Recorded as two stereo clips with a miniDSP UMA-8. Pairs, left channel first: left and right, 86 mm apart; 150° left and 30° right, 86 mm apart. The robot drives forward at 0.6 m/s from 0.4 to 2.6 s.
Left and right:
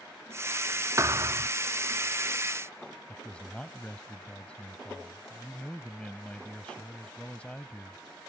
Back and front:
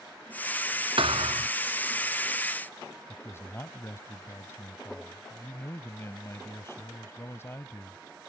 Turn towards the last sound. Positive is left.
turn(degrees=150)